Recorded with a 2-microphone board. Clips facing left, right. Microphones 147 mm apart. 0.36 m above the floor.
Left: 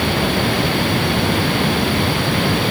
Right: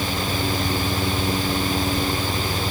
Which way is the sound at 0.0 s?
70° left (ahead or behind).